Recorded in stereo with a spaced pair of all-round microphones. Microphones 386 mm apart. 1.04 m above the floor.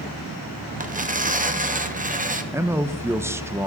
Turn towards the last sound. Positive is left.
turn(degrees=-5)  # may be behind; listen again after turning